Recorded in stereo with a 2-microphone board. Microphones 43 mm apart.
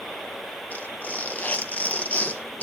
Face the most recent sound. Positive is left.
turn(degrees=40)  # may be behind; listen again after turning